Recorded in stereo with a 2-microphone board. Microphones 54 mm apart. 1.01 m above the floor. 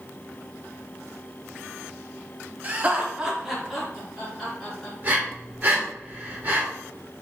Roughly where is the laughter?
Right.